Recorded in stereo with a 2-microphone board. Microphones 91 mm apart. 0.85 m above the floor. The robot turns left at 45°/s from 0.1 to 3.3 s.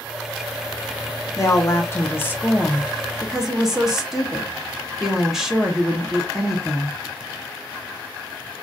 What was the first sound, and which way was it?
A woman speaking, 80° left.